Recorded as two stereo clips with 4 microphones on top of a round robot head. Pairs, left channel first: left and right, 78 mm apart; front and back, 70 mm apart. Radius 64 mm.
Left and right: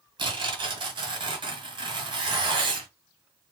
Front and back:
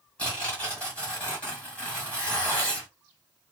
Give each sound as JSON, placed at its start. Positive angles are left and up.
{"t": 0.2, "sound": "tearing paper", "azimuth_deg": -80, "distance_m": 1.3}